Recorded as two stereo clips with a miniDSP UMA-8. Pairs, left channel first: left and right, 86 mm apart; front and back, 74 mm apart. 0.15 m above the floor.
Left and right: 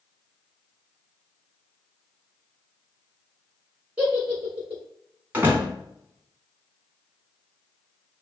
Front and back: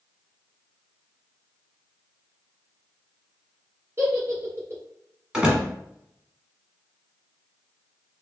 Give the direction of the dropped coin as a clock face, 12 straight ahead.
I don't hear a dropped coin.